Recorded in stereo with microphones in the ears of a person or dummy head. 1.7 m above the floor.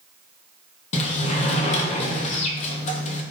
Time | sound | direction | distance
0.9 | a sliding door | 35° left (ahead or behind) | 0.8 m